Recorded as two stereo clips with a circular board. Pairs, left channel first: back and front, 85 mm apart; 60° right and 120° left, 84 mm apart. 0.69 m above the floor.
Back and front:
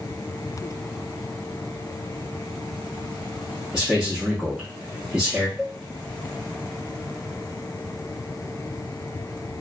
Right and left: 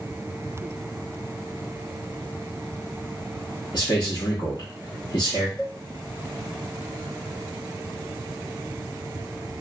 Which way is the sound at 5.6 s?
90° right.